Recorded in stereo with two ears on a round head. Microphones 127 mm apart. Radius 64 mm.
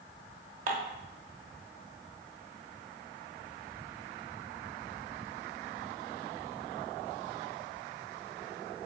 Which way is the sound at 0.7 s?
60° right (ahead or behind).